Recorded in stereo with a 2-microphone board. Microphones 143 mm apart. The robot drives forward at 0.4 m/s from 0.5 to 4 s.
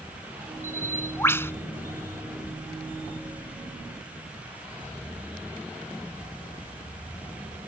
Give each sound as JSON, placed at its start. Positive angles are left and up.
{"t": 0.6, "sound": "a bird", "side_deg": 20}